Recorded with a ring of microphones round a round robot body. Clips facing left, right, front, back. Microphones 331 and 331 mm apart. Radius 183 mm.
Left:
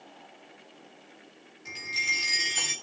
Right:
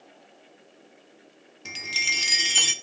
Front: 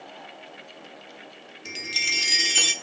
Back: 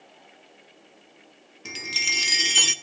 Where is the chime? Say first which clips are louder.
Right 4 dB, even; 105° right, 1.5 m.